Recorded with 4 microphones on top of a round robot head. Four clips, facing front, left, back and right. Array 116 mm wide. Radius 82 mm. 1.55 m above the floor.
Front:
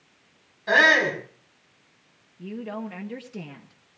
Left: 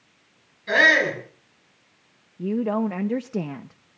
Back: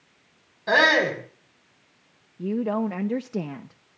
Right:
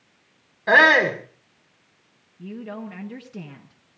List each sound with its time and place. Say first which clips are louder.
0.7 s a shout: right 3 dB, even; 110° right, 5.5 m
2.4 s a woman speaking: left 11 dB, back 8 dB; 125° left, 0.8 m